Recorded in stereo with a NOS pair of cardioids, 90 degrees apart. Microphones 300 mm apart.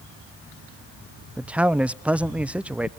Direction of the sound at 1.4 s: 5° right.